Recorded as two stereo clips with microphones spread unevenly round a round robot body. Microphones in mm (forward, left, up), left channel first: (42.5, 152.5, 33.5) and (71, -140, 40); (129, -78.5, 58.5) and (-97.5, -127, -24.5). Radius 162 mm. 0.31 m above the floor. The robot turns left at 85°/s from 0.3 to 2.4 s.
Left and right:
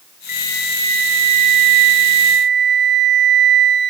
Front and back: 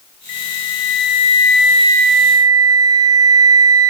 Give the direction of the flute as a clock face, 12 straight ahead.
11 o'clock.